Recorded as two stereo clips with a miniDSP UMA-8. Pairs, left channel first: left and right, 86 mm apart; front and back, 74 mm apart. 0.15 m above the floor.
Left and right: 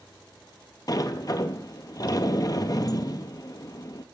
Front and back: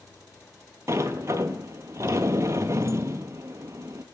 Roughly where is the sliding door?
Behind left.